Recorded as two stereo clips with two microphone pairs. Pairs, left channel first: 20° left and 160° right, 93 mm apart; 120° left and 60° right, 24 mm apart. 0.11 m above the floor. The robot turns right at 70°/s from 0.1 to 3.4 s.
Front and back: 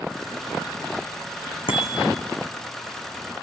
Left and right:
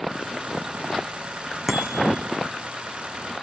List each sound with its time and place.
1.7 s a bicycle bell: 20° left, 5.5 m; by 2.0 s 40° left, 5.5 m